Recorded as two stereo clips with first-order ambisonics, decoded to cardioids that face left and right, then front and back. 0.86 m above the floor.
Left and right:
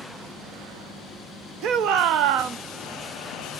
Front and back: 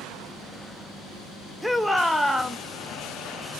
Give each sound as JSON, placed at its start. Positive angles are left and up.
{"t": 1.6, "sound": "a shout", "azimuth_deg": -90, "distance_m": 0.5}